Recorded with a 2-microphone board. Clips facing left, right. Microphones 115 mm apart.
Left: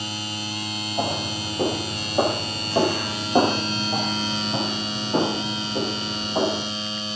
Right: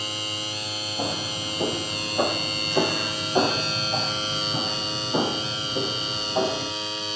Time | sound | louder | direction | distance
1.0 | footsteps | left 4 dB | 40° left (ahead or behind) | 10 m